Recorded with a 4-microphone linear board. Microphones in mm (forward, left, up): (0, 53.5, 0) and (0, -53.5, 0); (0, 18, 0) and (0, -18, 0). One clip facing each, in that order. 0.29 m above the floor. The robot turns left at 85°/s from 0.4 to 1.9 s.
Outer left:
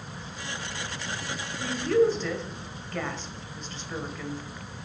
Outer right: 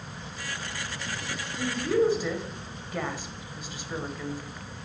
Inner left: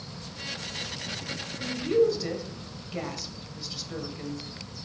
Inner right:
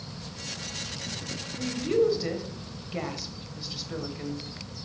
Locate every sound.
1.6 s a woman speaking: 25° right (ahead or behind), 1.0 m; by 4.5 s 10° right (ahead or behind), 1.0 m